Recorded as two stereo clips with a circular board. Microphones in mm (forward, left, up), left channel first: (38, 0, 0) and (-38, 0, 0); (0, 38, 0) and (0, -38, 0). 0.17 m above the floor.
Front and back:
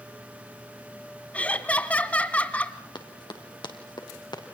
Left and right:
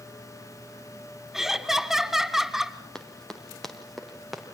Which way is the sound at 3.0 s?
10° left.